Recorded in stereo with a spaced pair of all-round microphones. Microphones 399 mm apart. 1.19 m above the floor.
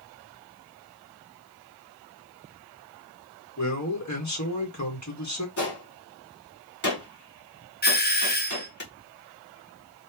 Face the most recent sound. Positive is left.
turn(degrees=25)  # may be behind; listen again after turning